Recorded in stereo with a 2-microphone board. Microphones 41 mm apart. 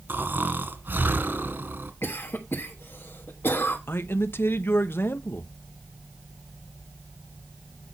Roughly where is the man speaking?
Left.